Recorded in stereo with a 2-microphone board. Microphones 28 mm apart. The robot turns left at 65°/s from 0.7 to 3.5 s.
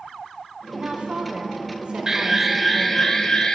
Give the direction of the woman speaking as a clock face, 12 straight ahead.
2 o'clock.